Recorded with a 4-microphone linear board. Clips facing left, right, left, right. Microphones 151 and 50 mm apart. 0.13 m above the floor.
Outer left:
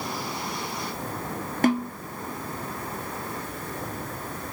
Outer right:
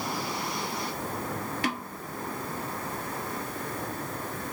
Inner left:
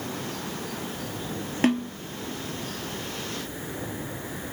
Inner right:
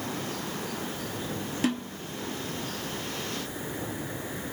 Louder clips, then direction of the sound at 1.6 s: Outer left 13 dB, inner left 6 dB; 45° left (ahead or behind).